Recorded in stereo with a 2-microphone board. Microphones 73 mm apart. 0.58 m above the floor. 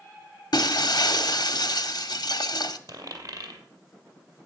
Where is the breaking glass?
65° left (ahead or behind), 0.7 m.